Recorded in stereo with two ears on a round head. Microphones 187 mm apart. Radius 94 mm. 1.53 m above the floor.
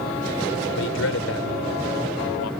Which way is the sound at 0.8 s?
65° left (ahead or behind).